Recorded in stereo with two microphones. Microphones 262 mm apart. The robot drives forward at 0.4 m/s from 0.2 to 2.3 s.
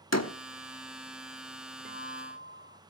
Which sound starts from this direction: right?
A guitar, at 1.9 s.